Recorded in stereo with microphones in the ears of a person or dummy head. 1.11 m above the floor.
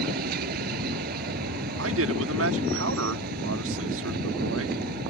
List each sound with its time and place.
0.0 s a vehicle: 55° right (ahead or behind)
1.8 s a man speaking: 80° right